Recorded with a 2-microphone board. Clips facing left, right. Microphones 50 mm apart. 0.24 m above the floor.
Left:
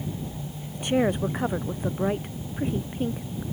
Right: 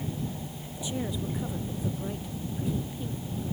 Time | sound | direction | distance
0.7 | a woman speaking | 55° left (ahead or behind) | ?